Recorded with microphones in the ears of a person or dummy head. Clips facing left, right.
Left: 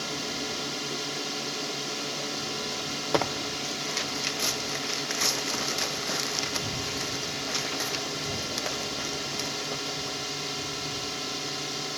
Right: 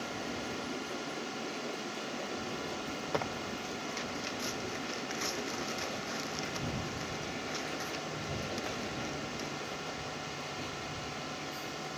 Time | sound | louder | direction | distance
0.0 | a drone | left 4 dB | 60° left (ahead or behind) | ?
3.1 | tearing paper | left 9 dB | 80° left | ?